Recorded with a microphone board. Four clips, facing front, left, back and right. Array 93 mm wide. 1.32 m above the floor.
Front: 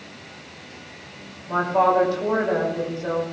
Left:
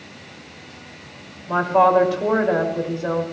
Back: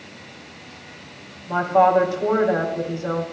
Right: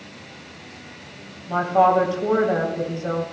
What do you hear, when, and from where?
1.5 s a woman speaking: 100° left, 5 m